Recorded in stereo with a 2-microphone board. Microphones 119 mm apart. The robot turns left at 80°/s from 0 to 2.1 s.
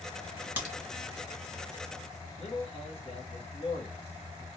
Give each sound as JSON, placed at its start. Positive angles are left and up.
{"t": 0.6, "sound": "a crack", "side_deg": -15, "distance_m": 1.9}
{"t": 2.4, "sound": "a man speaking", "side_deg": 50, "distance_m": 1.2}